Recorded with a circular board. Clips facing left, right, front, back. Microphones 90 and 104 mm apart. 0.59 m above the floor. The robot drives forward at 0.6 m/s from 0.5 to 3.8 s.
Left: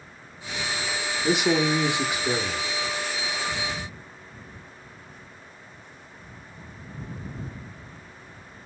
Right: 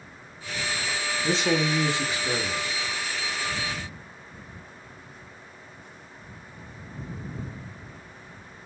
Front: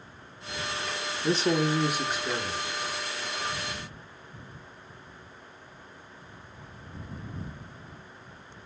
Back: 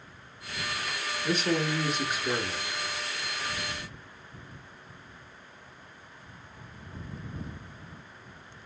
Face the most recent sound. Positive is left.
turn(degrees=170)